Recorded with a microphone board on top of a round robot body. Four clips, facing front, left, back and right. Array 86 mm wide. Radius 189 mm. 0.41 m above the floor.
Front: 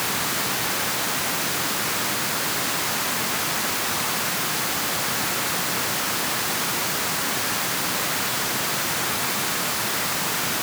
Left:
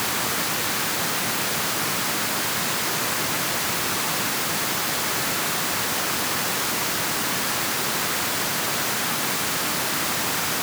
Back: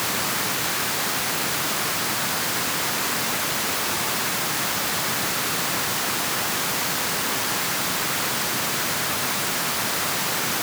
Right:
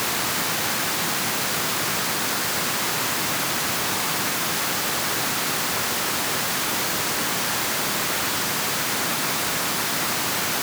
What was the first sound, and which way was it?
Only background noise.